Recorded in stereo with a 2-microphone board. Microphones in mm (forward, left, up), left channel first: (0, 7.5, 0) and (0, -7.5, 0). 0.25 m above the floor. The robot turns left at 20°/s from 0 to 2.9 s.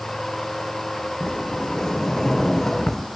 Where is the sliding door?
55° left; by 3.1 s 20° left.